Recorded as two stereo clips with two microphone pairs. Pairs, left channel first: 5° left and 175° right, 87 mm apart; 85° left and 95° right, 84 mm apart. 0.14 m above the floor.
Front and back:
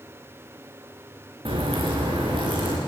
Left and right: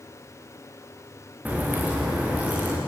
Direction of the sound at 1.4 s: 165° right.